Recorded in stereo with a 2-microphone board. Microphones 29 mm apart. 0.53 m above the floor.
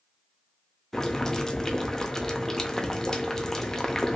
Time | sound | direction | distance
0.9 | boiling | 20° left (ahead or behind) | 0.6 m